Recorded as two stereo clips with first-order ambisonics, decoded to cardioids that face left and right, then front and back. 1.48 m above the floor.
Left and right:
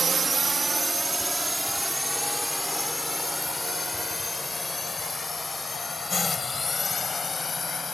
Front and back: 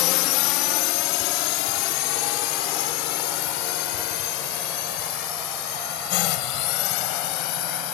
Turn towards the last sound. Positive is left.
turn(degrees=15)